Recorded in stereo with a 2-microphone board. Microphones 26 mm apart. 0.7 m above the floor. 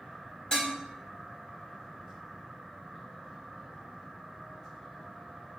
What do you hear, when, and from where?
0.5 s dishes clattering: 40° left (ahead or behind), 1.3 m